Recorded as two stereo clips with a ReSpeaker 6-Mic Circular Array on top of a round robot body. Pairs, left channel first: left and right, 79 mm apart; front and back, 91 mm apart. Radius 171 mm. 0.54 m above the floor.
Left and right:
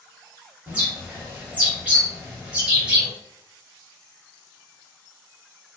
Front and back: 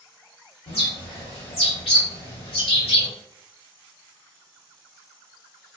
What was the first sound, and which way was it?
A bird, 20° right.